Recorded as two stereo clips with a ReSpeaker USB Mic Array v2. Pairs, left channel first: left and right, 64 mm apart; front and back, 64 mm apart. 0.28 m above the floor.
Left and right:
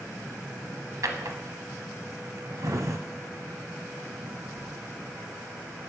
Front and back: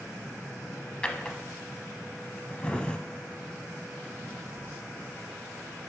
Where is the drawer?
75° right, 0.7 m.